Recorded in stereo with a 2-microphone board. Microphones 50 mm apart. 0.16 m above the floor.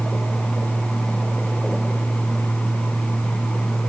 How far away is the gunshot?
I don't hear a gunshot.